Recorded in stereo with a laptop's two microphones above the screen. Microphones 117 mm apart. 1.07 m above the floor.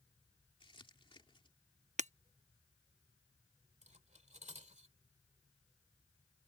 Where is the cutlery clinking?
75° right (ahead or behind).